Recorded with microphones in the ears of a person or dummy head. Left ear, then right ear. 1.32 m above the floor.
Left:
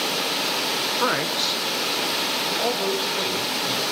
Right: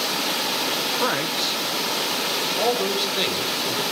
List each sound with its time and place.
1.0 s a man speaking: 5° left (ahead or behind), 1.1 m
2.6 s a man speaking: 50° right (ahead or behind), 6 m